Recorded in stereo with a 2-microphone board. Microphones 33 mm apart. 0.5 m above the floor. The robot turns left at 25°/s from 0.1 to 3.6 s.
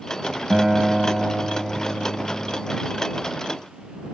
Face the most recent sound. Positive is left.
turn(degrees=125)